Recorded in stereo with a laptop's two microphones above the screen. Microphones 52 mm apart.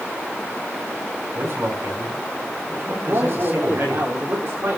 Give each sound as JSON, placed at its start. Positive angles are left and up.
{"t": 1.3, "sound": "a man speaking", "side_deg": -45, "distance_m": 7.0}
{"t": 3.1, "sound": "a man speaking", "side_deg": -55, "distance_m": 2.5}